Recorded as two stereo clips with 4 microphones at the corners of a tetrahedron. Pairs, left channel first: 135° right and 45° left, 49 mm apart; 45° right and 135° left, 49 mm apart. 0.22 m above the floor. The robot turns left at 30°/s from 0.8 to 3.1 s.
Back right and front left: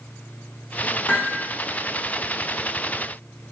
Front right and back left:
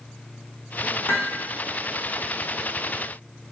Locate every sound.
1.1 s hammering: 85° right, 5 m; by 1.4 s 95° right, 5 m